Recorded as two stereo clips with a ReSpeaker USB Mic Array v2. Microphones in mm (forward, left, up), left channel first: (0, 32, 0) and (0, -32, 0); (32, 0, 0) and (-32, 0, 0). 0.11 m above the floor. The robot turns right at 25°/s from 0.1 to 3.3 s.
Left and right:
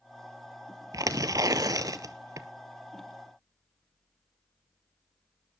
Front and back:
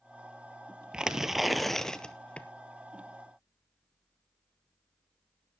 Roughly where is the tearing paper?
Right.